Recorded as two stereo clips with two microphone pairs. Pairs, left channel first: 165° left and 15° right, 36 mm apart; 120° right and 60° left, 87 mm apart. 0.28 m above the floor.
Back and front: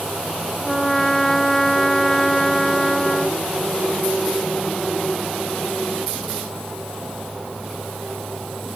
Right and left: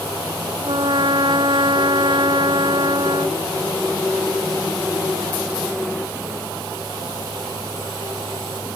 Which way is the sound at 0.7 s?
85° left.